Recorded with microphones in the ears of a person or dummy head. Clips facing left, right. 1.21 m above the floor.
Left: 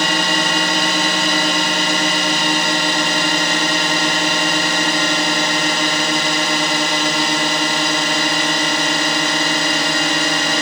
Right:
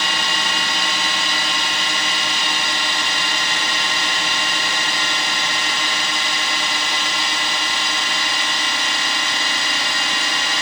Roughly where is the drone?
Left.